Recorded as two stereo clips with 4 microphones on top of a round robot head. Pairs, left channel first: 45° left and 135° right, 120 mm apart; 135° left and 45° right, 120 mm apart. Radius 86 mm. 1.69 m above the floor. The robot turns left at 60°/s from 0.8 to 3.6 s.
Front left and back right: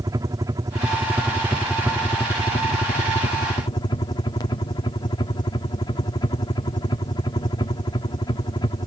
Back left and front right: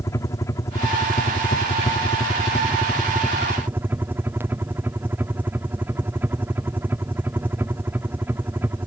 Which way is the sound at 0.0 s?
175° right.